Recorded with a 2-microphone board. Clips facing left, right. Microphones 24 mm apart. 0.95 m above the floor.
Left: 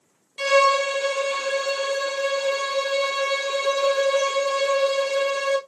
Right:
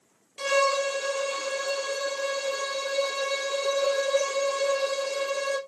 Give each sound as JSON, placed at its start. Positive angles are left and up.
{"t": 0.4, "sound": "a violin", "side_deg": 35, "distance_m": 1.0}